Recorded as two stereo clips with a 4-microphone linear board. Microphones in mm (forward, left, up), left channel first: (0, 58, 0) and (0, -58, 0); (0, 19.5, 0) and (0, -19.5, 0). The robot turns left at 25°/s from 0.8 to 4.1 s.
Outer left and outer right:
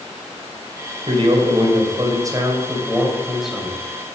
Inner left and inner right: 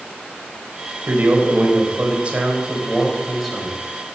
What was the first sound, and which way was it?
A man speaking, 120° right.